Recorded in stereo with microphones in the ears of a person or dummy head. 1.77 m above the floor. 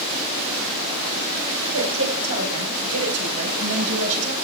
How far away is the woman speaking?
About 7 m.